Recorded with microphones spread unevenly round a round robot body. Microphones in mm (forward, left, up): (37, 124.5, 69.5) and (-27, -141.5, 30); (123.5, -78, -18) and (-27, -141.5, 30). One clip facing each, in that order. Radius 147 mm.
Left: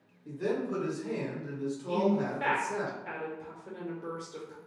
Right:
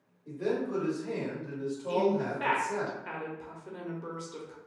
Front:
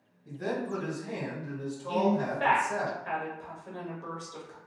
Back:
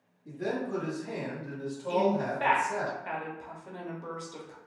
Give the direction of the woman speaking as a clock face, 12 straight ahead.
2 o'clock.